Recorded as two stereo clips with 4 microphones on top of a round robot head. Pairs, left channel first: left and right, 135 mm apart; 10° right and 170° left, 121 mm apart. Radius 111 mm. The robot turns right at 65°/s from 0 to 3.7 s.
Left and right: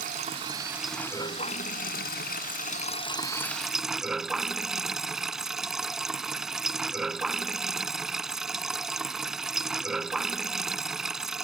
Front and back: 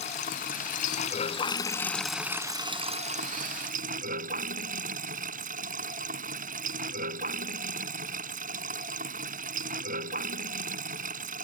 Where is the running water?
55° right; by 11.4 s 175° right.